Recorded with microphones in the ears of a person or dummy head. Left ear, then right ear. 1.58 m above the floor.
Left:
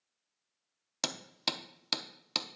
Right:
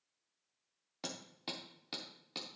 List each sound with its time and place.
1.0 s hammering: 60° left (ahead or behind), 0.7 m